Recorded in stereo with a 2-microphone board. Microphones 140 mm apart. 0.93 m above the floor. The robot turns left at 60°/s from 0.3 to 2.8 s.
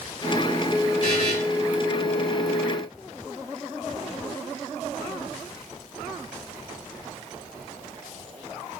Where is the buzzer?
60° left (ahead or behind), 1.5 m.